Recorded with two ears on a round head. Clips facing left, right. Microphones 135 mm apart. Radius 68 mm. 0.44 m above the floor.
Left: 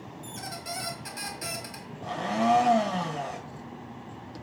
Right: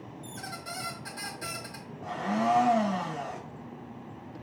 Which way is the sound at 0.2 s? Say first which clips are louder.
Left 3 dB; 25° left (ahead or behind).